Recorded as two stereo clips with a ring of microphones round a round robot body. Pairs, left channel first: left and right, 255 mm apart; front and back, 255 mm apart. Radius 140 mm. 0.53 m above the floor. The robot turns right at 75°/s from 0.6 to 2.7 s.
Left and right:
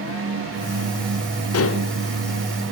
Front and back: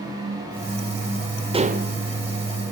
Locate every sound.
1.5 s dishes clattering: 110° left, 1.4 m; by 1.9 s 140° left, 1.4 m